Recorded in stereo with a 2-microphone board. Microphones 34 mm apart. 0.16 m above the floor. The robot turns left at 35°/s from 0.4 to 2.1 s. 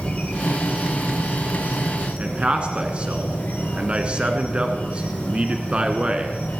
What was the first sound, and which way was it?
An insect, 140° left.